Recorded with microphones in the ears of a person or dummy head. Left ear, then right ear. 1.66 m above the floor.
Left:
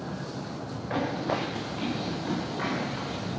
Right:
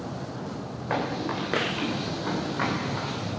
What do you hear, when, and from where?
0.9 s running footsteps: 45° right (ahead or behind), 10 m; by 3.3 s 40° right (ahead or behind), 8 m